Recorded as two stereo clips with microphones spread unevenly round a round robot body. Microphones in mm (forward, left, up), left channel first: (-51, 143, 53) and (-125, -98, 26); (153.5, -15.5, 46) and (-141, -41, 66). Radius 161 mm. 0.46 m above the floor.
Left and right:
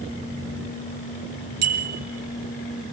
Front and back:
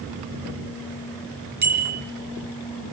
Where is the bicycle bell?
115° right, 9 m.